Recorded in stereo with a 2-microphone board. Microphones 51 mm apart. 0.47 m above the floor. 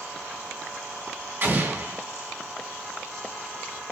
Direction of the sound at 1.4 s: 40° right (ahead or behind).